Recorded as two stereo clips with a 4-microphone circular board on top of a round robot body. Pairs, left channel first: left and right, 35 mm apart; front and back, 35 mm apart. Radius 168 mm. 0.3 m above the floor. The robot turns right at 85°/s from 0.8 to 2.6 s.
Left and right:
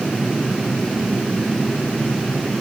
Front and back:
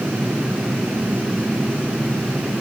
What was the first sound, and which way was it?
Only background noise.